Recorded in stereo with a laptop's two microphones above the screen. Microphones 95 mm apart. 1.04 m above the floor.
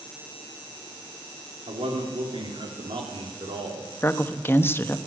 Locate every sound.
1.7 s a man speaking: 75° right (ahead or behind), 3 m
4.0 s a woman speaking: 25° left (ahead or behind), 1.0 m